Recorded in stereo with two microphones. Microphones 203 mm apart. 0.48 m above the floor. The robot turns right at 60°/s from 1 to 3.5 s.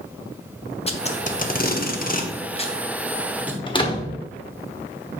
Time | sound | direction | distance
0.9 | tape being pulled | 30° left (ahead or behind) | 0.9 m
3.7 | a door slam | 25° left (ahead or behind) | 1.1 m